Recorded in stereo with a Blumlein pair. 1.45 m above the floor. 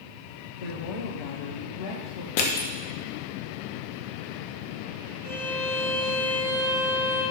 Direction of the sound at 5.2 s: 50° left.